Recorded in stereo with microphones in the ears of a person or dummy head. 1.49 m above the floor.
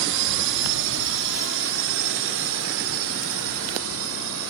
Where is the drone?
65° right (ahead or behind); by 4.5 s 80° right.